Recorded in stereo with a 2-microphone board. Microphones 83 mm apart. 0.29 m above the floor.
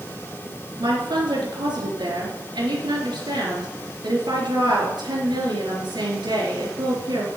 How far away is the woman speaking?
About 4 m.